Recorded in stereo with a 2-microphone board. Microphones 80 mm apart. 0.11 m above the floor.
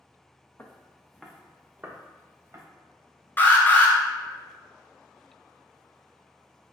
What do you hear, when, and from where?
0.6 s footsteps: 30° left (ahead or behind), 0.8 m; by 2.6 s 40° right (ahead or behind), 1.2 m
3.4 s an alarm: 25° left (ahead or behind), 0.8 m